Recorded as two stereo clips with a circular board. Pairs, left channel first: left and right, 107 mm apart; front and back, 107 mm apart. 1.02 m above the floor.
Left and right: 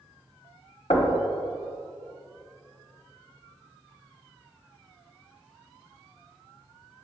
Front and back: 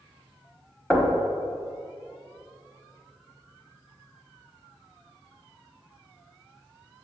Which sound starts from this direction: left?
Knocking, at 0.9 s.